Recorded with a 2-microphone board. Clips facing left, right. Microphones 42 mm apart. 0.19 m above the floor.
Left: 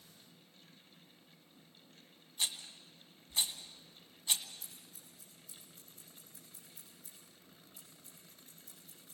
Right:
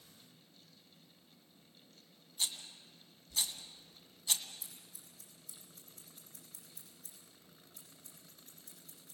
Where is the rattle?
30° left (ahead or behind), 1.8 m.